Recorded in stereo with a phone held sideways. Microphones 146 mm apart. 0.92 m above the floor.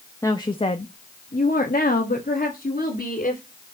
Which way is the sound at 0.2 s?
20° left (ahead or behind).